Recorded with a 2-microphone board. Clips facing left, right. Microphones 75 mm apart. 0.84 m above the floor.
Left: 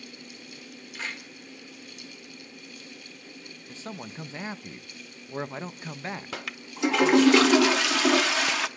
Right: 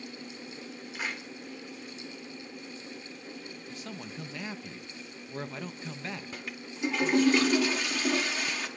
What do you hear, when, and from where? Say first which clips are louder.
0.9 s a clap: even; 10° right (ahead or behind), 1.9 m
3.7 s a man speaking: left 4 dB; 30° left (ahead or behind), 0.7 m
6.3 s a toilet flushing: left 3 dB; 80° left, 0.7 m